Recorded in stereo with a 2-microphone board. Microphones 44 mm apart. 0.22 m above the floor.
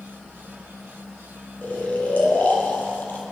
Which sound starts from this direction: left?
Snoring, at 1.6 s.